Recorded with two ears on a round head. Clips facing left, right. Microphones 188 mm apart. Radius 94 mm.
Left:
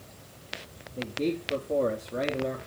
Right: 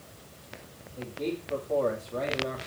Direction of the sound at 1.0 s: 35° left (ahead or behind).